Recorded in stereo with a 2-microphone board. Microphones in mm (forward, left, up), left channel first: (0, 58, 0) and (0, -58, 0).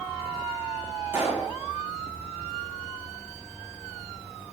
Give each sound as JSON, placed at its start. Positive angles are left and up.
{"t": 1.1, "sound": "a pop", "side_deg": -20, "distance_m": 3.0}